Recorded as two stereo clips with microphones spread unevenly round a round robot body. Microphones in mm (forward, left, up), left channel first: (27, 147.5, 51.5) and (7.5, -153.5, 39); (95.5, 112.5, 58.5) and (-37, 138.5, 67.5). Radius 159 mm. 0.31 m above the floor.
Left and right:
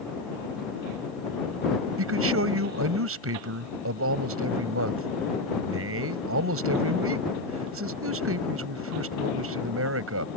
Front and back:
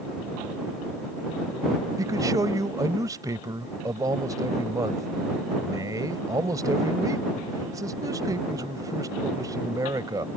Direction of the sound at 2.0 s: 125° right.